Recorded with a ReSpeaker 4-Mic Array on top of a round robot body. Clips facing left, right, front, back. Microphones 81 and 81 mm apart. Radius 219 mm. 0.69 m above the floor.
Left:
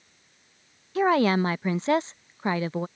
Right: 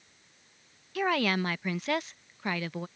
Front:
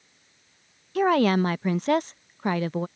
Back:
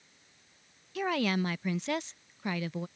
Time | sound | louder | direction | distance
0.9 | a woman speaking | left 7 dB, front 10 dB | 35° left | ?